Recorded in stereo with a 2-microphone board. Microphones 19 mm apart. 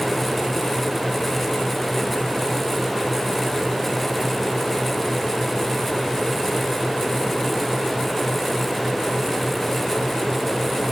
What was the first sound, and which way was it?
Only background noise.